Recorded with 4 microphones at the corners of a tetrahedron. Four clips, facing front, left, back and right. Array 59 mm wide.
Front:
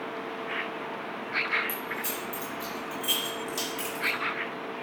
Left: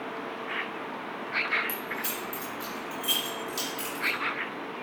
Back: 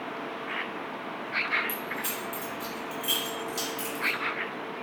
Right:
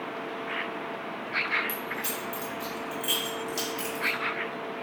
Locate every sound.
1.7 s keys jangling: 175° right, 1.2 m; by 4.2 s 20° right, 1.2 m